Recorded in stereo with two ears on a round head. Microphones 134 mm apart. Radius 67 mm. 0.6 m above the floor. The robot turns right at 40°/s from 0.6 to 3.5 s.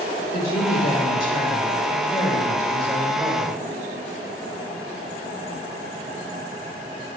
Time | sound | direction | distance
0.3 | a woman speaking | 85° left | 2 m